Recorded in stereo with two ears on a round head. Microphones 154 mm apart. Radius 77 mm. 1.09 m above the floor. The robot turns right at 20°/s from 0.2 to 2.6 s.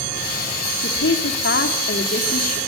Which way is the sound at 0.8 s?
100° left.